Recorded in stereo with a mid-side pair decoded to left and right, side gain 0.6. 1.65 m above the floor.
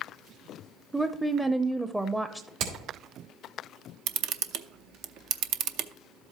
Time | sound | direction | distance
0.9 | a woman speaking | 5° right | 0.6 m
2.6 | hammering | 70° right | 3 m
4.1 | a camera shutter | 70° right | 0.7 m